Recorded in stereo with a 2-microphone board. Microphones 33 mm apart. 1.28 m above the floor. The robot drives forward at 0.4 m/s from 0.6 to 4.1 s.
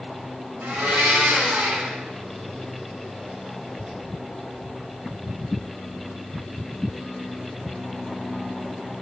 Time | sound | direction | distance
0.6 | a blender | 65° right (ahead or behind) | 2.5 m